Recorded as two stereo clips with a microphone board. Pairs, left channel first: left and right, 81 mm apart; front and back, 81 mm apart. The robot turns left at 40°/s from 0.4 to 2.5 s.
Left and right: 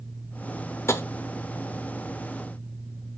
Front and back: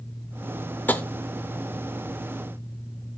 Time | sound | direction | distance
0.9 | tapping | 55° left | 0.5 m